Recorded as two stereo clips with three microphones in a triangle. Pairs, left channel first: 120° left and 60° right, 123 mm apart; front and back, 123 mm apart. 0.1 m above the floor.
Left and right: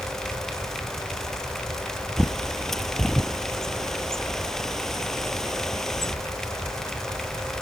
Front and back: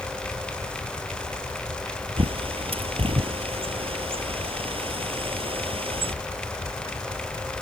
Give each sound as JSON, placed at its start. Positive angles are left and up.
{"t": 2.2, "sound": "a bird", "azimuth_deg": -155}